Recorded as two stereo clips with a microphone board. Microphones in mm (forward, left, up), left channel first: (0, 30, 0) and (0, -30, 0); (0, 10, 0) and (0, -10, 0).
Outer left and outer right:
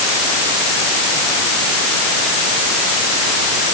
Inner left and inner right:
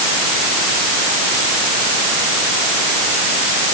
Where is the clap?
I don't hear a clap.